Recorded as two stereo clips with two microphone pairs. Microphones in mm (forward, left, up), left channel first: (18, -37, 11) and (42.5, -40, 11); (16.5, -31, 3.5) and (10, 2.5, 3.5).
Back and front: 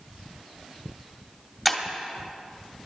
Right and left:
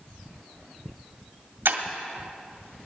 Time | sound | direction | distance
1.6 | breaking glass | 90° left | 1.3 m